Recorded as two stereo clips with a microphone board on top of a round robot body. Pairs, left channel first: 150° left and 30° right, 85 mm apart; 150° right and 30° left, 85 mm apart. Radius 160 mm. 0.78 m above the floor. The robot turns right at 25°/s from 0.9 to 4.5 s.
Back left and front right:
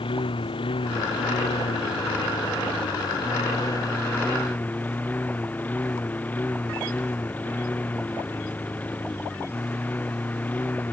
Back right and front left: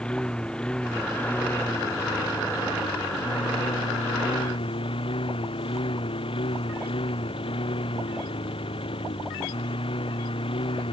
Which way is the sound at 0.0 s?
130° left.